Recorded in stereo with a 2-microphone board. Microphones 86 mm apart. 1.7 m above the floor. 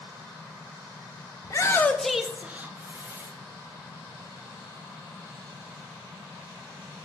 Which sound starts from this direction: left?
A shout, at 1.4 s.